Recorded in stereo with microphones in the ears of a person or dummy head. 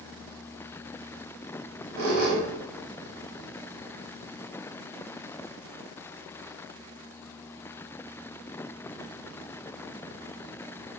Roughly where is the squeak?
Right.